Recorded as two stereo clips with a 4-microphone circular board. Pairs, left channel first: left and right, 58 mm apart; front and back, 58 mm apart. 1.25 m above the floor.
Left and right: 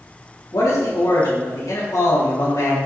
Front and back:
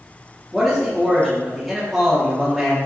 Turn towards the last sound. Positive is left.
turn(degrees=90)